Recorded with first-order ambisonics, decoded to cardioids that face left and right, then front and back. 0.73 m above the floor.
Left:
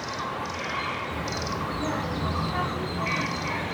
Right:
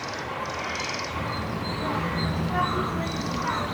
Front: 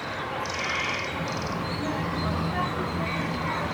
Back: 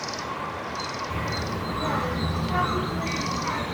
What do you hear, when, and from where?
1.1 s a child speaking: 170° left, 1.7 m; by 3.7 s 135° right, 2 m